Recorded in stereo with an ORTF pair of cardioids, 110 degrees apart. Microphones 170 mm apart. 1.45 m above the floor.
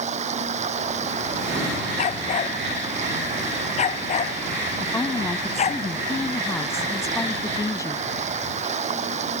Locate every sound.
0.0 s running water: 40° right
2.0 s a dog barking: 45° left
4.8 s a woman speaking: 20° left